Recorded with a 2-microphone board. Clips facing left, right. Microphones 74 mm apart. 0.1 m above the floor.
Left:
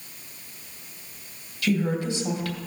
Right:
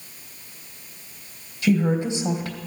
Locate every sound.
1.6 s a woman speaking: 20° right (ahead or behind), 3 m